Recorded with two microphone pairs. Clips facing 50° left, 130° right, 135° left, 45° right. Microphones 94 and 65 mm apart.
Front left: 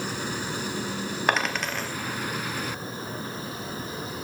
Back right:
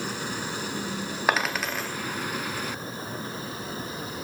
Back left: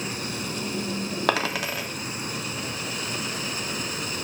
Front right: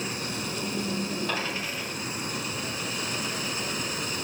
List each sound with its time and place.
1.3 s a dropped coin: 140° left, 0.6 m